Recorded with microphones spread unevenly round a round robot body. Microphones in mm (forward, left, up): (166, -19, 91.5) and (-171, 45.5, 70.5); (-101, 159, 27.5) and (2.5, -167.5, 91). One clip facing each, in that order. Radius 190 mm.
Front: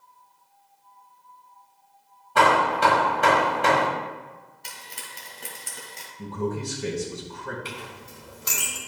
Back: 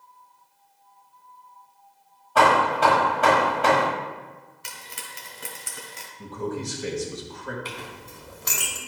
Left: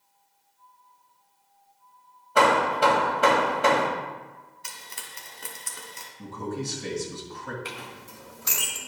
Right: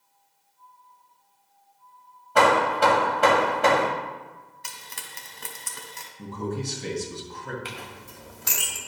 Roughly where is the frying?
Right.